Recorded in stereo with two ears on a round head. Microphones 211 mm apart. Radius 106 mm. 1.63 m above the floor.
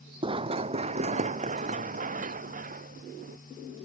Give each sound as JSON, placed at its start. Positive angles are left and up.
{"t": 0.2, "sound": "running footsteps", "side_deg": -20}